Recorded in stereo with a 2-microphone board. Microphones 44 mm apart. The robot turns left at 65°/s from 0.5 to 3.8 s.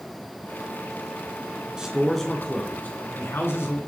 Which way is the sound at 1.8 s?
160° right.